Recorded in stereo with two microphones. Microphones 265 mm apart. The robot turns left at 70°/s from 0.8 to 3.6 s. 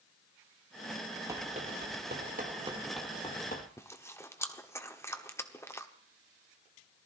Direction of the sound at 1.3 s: 10° right (ahead or behind).